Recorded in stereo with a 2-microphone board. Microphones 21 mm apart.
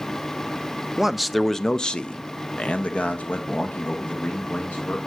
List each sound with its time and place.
1.0 s a man speaking: 15° right (ahead or behind), 0.5 m; by 5.0 s 80° left, 1.9 m